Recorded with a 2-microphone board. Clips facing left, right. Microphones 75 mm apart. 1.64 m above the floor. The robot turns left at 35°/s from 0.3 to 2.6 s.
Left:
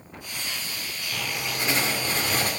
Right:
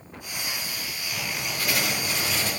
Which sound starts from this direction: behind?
Writing, at 1.1 s.